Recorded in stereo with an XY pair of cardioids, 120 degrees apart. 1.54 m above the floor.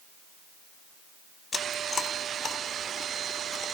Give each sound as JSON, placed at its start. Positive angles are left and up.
{"t": 1.5, "sound": "chewing", "azimuth_deg": 35, "distance_m": 2.0}